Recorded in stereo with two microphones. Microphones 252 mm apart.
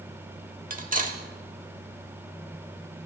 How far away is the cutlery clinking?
About 0.8 m.